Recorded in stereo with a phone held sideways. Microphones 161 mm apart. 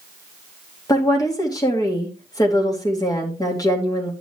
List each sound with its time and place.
0.9 s a woman speaking: 25° left (ahead or behind), 2.5 m